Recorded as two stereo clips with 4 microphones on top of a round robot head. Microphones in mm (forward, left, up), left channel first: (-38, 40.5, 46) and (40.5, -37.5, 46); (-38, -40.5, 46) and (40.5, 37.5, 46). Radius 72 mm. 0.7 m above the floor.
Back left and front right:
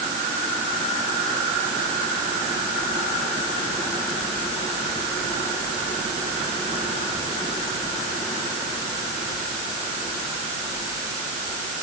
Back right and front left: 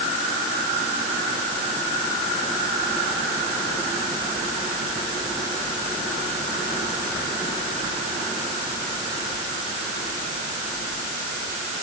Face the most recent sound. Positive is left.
No sound to turn to.